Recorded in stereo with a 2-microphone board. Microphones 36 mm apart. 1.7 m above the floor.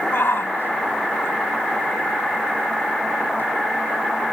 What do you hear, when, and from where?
0.1 s a shout: 75° left (ahead or behind); by 3.5 s 70° left (ahead or behind)